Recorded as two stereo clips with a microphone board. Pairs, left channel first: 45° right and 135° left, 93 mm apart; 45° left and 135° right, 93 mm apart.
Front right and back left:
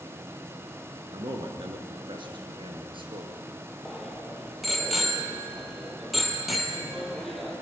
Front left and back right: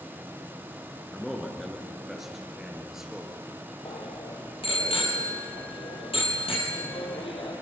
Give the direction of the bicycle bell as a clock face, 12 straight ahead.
11 o'clock.